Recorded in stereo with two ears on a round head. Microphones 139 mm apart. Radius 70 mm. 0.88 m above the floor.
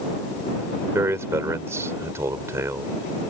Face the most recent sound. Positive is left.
turn(degrees=-15)  # may be behind; listen again after turning